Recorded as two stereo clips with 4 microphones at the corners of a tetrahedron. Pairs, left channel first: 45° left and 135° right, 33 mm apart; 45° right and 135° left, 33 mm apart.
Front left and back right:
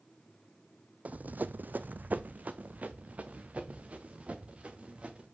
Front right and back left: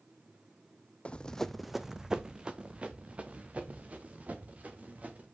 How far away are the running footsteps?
About 0.6 m.